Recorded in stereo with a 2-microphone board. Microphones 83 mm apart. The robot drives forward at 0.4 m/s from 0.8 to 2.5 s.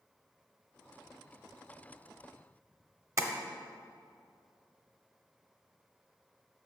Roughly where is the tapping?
Right.